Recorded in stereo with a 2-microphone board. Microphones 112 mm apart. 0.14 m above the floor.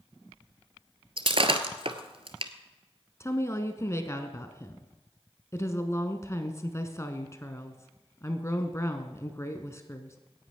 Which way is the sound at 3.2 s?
25° left (ahead or behind).